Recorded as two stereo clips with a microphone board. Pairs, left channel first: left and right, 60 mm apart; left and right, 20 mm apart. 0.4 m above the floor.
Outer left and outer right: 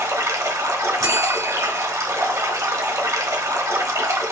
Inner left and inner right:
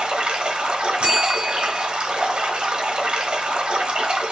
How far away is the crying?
No crying in this recording.